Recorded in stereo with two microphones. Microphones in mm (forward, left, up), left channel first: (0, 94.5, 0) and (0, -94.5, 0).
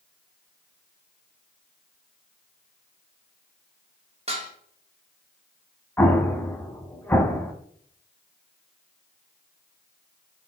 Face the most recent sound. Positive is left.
turn(degrees=10)  # may be behind; listen again after turning